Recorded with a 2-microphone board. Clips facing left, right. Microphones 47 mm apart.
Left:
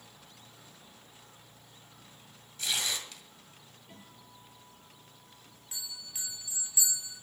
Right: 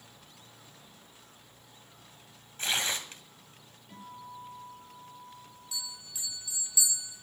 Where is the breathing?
No breathing in this recording.